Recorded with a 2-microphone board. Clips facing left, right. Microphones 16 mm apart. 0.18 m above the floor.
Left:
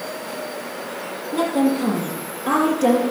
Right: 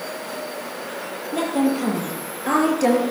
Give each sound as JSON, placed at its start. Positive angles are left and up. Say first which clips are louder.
{"t": 1.3, "sound": "a woman speaking", "louder": "left 2 dB", "side_deg": -30, "distance_m": 5.0}